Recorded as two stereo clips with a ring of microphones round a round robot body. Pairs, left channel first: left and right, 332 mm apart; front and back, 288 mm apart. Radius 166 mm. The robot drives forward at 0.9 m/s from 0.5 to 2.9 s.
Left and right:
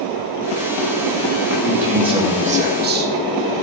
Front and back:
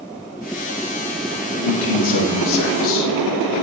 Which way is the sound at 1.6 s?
10° right.